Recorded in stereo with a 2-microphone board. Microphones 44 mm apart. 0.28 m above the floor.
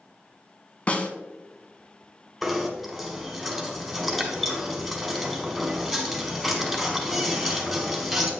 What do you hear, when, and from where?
0.9 s a snare drum: 30° left (ahead or behind), 0.8 m
2.4 s knocking: 5° left (ahead or behind), 1.6 m